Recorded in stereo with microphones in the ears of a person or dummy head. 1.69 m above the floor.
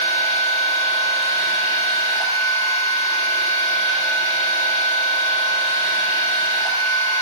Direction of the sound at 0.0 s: 30° right (ahead or behind).